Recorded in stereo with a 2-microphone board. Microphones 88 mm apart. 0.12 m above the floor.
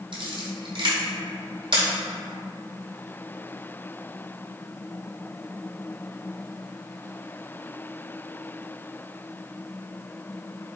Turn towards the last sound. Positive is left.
turn(degrees=-70)  # may be behind; listen again after turning